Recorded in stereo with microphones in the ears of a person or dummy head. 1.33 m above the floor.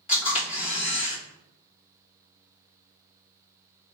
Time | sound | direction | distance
0.1 | a camera shutter | 40° left (ahead or behind) | 1.6 m